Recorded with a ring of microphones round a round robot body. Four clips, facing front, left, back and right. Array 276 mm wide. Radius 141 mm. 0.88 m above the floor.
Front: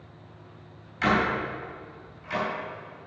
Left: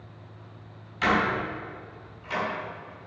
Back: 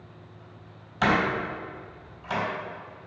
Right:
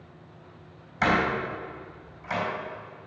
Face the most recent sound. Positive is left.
turn(degrees=-140)